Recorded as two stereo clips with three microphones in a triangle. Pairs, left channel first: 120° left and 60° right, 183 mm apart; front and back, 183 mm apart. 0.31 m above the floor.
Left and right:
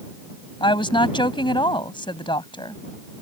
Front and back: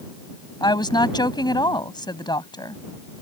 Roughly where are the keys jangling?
I don't hear keys jangling.